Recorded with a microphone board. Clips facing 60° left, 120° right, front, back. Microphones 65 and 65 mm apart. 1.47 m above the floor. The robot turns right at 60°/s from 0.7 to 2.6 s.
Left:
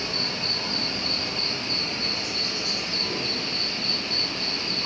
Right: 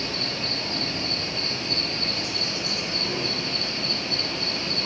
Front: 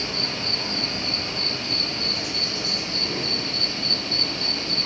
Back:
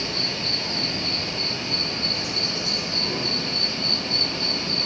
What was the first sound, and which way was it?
An insect, 55° left.